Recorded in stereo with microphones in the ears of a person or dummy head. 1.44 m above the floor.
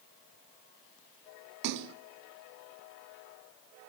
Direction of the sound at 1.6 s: 60° right (ahead or behind).